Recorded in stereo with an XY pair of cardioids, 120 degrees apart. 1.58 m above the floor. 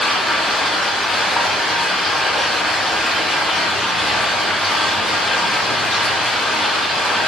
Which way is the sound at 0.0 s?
15° left.